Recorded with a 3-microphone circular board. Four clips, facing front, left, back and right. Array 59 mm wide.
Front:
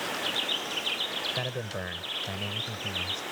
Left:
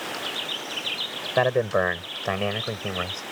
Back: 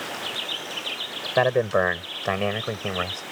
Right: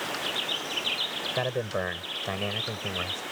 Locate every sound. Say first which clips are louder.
1.4 s a man speaking: left 9 dB, back 14 dB; 150° left; by 3.2 s 165° left